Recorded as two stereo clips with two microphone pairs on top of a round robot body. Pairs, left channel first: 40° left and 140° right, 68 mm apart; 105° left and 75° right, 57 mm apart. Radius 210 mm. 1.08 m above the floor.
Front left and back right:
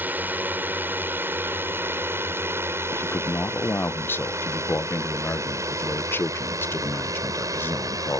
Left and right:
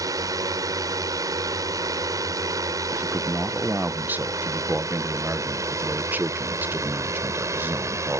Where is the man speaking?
20° right.